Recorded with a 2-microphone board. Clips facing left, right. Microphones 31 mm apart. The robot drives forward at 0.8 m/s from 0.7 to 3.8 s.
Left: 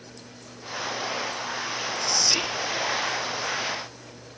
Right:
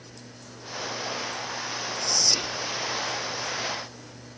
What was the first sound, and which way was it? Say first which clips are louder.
Whispering: left 1 dB; 40° left (ahead or behind).